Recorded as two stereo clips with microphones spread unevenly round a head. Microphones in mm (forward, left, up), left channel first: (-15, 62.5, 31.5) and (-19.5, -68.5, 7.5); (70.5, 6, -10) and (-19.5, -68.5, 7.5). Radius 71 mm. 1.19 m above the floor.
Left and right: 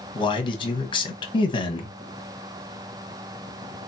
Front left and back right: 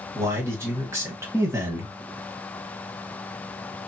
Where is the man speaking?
145° left, 1.2 m.